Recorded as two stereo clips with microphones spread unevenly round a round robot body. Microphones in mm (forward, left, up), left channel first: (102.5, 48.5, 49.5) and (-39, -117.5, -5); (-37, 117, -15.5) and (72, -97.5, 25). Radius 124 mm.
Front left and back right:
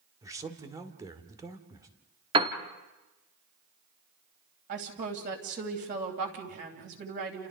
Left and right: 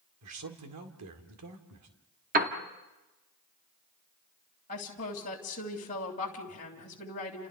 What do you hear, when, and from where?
0.2 s a man speaking: 70° right, 2 m
2.3 s a piano: 110° right, 1.5 m
4.7 s a woman speaking: 175° left, 3 m